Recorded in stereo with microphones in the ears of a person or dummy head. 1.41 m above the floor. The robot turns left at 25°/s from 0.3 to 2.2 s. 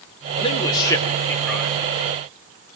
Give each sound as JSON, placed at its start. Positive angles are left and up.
{"t": 0.4, "sound": "a man speaking", "azimuth_deg": 30, "distance_m": 3.5}